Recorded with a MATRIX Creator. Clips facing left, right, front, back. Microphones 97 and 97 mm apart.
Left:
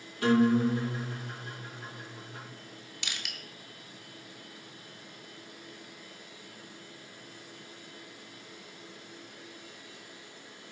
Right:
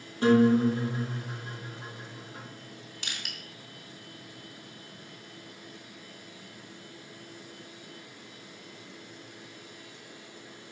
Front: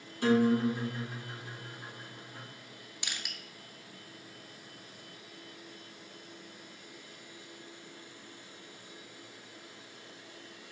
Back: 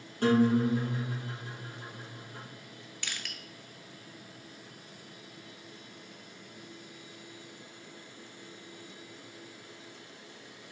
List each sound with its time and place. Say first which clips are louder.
0.2 s a guitar: right 3 dB, back 1 dB; 150° right, 2 m
3.0 s crushing: even, even; 65° right, 0.6 m